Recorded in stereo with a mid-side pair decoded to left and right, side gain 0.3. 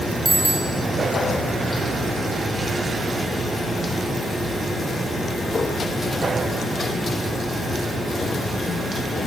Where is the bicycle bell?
25° right, 3 m.